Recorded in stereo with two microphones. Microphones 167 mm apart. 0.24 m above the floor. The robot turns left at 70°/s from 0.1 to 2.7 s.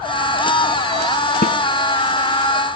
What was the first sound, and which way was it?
A snare drum, 65° left (ahead or behind).